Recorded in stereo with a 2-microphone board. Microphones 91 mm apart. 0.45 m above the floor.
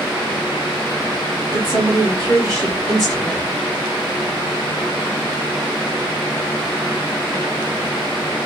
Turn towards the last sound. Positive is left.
turn(degrees=-40)  # may be behind; listen again after turning